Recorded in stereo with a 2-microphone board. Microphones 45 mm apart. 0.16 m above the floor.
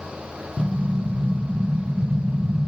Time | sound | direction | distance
0.6 | an explosion | 5° left (ahead or behind) | 1.5 m